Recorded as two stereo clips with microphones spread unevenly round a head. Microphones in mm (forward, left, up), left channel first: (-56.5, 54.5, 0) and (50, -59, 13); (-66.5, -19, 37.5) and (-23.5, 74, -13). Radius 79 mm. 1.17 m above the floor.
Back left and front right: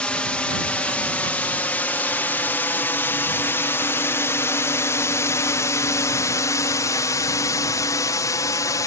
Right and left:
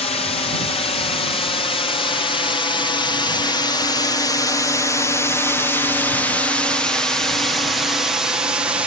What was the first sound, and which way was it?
A drone, 145° right.